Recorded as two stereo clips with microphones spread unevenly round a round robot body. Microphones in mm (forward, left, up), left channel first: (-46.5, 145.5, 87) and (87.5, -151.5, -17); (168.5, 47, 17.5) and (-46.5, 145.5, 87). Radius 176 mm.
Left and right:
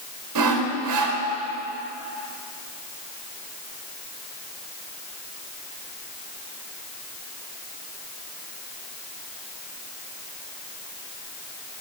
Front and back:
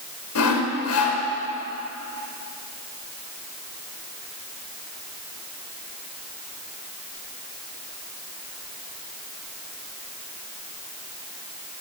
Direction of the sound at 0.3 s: 35° right.